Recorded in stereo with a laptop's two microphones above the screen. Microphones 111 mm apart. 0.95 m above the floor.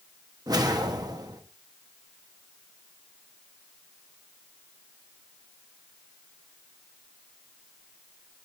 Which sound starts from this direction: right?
A whoosh, at 0.5 s.